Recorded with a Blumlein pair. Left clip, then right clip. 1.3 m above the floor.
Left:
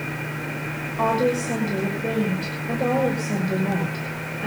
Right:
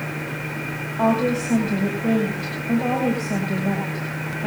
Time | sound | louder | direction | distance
1.0 | a woman speaking | even | 40° left | 6.5 m